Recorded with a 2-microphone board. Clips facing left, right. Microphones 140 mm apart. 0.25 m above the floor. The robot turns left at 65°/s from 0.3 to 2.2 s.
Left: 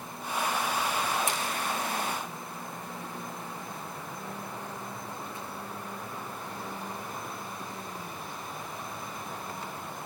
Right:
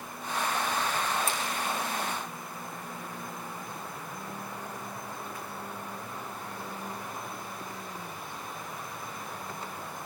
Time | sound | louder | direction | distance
1.3 | a splash | even | 20° left (ahead or behind) | 4 m